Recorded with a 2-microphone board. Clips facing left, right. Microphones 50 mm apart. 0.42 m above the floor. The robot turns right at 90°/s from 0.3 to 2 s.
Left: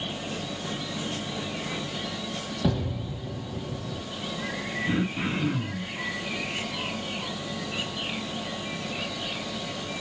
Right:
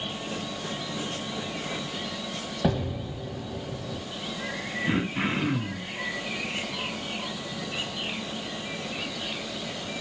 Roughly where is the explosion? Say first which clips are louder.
Right 1 dB; right.